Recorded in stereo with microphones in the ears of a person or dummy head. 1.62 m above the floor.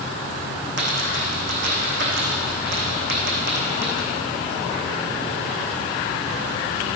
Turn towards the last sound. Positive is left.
turn(degrees=-75)  # may be behind; listen again after turning